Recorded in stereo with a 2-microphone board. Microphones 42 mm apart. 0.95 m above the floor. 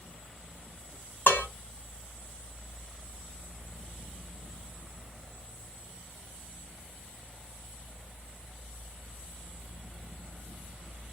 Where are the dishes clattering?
55° left (ahead or behind), 1.5 m.